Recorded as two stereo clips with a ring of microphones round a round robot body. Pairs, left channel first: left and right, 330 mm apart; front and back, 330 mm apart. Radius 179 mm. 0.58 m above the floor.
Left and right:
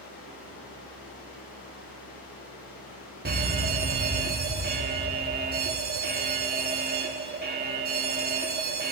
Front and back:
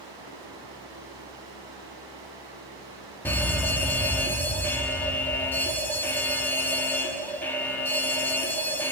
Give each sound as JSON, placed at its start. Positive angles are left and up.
{"t": 0.0, "sound": "running water", "azimuth_deg": 160, "distance_m": 5.0}
{"t": 3.2, "sound": "a fire alarm", "azimuth_deg": -80, "distance_m": 1.6}